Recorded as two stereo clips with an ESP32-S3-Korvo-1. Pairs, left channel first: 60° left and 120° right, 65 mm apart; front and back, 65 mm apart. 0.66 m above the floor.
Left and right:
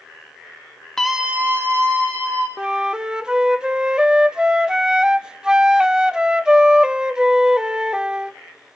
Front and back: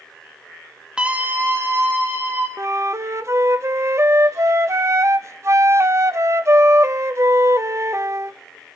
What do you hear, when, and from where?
1.0 s a scream: 130° left, 0.9 m; by 2.5 s 140° right, 2.5 m
2.6 s a flute: 165° left, 0.6 m